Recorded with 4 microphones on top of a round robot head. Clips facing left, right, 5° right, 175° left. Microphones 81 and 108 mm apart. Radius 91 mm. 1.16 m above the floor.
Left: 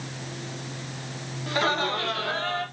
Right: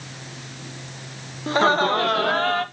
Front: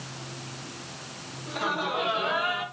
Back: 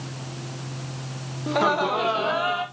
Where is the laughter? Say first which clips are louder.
Right 7 dB, back 8 dB; 145° right, 1.2 m; by 2.6 s 120° right, 1.7 m.